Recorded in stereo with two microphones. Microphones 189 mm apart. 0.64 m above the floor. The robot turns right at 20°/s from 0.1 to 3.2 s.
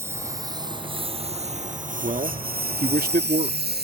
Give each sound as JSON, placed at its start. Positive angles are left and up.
{"t": 0.0, "sound": "a lawn mower", "side_deg": -15}
{"t": 2.0, "sound": "a man speaking", "side_deg": -40}